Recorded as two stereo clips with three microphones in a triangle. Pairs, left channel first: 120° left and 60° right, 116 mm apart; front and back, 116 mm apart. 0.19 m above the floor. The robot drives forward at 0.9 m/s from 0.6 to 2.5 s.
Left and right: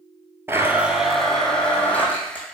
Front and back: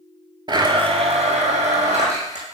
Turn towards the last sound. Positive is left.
turn(degrees=-165)